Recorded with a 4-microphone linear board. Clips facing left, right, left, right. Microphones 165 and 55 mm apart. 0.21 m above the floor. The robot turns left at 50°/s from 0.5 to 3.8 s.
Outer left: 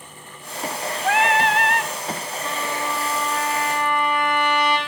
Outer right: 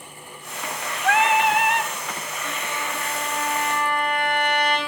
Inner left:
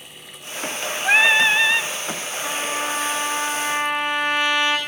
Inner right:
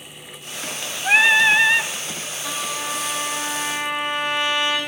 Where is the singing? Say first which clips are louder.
Even, inner right 1 dB; 10° left, 0.9 m; by 1.9 s 35° right, 0.9 m.